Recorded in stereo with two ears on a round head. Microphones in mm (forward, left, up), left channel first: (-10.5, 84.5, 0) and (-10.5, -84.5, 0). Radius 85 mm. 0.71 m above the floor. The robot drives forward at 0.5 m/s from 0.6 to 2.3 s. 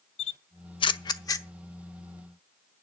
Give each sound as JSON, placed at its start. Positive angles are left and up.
{"t": 0.2, "sound": "a camera shutter", "side_deg": 30, "distance_m": 0.5}